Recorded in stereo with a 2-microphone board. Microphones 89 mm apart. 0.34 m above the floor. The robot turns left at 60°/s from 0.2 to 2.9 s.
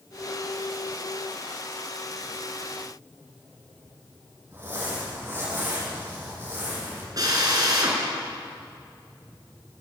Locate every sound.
4.5 s crumpling: 30° right (ahead or behind), 9.5 m
7.2 s a drill: 45° right (ahead or behind), 5.5 m